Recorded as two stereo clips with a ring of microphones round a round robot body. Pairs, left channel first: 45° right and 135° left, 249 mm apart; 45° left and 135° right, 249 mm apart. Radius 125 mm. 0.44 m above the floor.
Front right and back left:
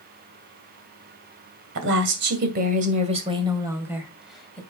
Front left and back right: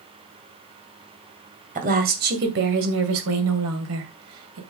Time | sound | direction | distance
1.8 | a woman speaking | 170° left | 2.5 m